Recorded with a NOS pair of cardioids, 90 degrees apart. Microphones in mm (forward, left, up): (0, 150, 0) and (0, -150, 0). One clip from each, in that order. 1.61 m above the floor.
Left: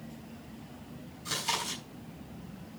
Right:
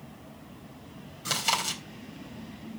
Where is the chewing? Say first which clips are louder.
Right 5 dB; 65° right, 4 m.